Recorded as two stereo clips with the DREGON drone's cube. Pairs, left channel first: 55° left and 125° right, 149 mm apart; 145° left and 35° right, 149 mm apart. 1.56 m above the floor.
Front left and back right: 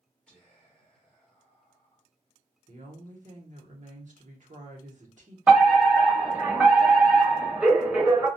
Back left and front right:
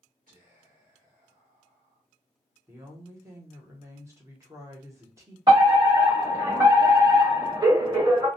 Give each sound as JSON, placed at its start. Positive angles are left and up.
{"t": 0.3, "sound": "whispering", "azimuth_deg": -25, "distance_m": 1.0}
{"t": 2.7, "sound": "a woman speaking", "azimuth_deg": -100, "distance_m": 0.9}
{"t": 5.5, "sound": "a fire alarm", "azimuth_deg": -55, "distance_m": 1.0}